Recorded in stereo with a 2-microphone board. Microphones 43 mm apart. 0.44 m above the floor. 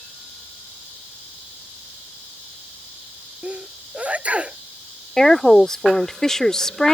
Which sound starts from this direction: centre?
A woman speaking, at 5.2 s.